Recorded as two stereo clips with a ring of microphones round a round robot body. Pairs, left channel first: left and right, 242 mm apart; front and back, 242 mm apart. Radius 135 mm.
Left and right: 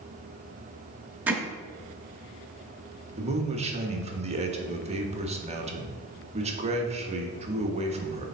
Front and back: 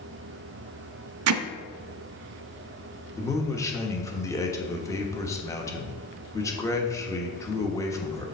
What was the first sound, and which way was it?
Hammering, 175° right.